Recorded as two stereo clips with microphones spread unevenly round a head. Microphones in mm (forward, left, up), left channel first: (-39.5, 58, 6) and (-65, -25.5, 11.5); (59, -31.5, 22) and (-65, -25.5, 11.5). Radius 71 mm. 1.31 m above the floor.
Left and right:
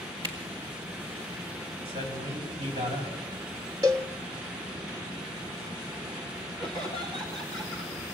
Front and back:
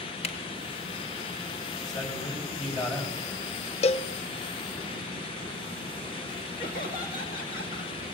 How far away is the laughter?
About 2 m.